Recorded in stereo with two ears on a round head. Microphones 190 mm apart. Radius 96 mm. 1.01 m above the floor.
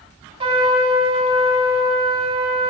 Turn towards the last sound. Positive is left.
turn(degrees=-25)  # may be behind; listen again after turning